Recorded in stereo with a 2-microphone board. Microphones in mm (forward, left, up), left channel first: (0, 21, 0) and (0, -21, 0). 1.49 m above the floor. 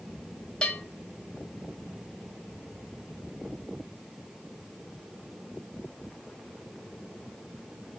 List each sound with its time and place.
0.6 s a bell: 20° left (ahead or behind), 4 m